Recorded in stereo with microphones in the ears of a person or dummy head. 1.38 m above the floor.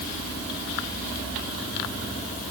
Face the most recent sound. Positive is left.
No sound to turn to.